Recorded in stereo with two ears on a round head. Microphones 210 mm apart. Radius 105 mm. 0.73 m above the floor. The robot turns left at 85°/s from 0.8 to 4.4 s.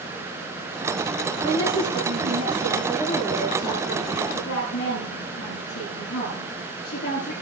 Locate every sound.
1.4 s a woman speaking: 45° right, 9 m; by 7.3 s 60° left, 9 m